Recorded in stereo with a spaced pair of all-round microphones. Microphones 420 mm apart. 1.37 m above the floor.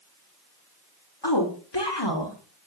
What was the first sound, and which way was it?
A woman speaking, 70° left (ahead or behind).